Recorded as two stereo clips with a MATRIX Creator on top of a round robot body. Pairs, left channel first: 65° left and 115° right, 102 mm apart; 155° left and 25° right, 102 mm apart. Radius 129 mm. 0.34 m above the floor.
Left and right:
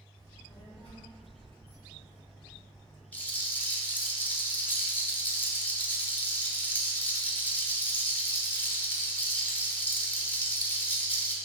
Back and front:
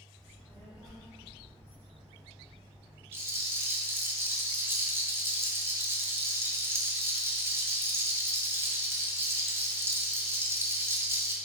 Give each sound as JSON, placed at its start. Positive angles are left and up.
{"t": 0.2, "sound": "a child speaking", "azimuth_deg": 80, "distance_m": 1.9}
{"t": 3.1, "sound": "a rattle", "azimuth_deg": 10, "distance_m": 0.9}